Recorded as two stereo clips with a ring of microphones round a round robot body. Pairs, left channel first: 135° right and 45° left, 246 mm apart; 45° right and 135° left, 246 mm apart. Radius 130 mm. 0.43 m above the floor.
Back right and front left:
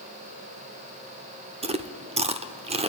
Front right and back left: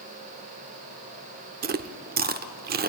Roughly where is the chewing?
Left.